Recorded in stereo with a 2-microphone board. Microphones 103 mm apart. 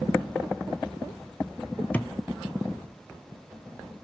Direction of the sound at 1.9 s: 15° left (ahead or behind).